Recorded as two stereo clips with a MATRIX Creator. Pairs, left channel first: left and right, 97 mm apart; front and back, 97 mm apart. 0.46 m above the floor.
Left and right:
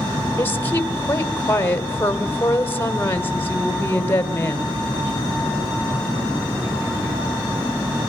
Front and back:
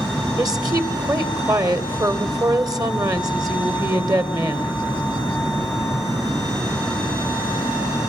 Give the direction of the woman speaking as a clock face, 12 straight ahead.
7 o'clock.